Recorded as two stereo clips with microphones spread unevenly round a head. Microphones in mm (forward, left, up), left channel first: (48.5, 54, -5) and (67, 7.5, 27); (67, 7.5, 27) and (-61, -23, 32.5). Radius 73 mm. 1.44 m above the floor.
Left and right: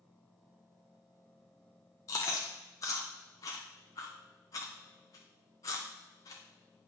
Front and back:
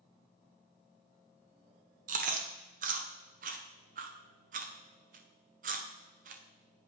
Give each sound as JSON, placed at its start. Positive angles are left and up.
{"t": 2.1, "sound": "chewing", "azimuth_deg": 160, "distance_m": 0.7}